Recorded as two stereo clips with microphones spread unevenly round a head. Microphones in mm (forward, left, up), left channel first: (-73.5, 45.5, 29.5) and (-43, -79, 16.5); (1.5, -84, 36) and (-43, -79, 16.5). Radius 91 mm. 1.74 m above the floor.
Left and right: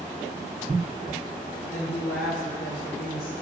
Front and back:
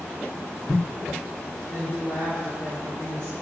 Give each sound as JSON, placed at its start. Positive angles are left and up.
{"t": 1.7, "sound": "a woman speaking", "azimuth_deg": 70, "distance_m": 6.0}